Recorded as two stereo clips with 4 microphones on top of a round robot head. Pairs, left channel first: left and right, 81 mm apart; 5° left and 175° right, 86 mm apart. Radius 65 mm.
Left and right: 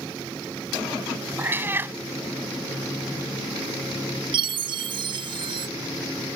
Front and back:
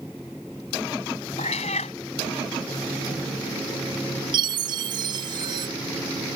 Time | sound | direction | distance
1.4 | a cat meowing | 25° right | ?
4.3 | a chime | 125° right | ?